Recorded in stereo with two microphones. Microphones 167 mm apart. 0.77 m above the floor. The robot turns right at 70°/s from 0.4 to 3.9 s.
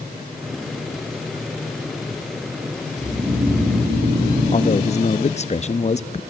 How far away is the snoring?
About 3.5 m.